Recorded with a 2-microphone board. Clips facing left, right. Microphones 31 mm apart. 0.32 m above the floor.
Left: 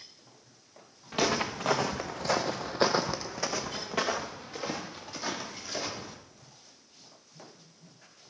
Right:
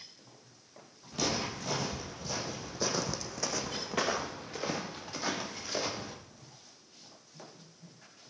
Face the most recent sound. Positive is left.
turn(degrees=-15)  # may be behind; listen again after turning